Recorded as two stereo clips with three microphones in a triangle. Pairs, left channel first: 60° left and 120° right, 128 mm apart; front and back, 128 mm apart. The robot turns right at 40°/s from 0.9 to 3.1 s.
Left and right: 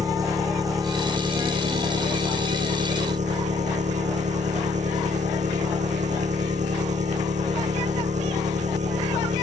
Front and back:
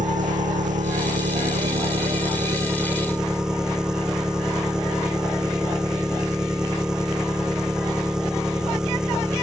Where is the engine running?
175° left; by 9.4 s 95° right.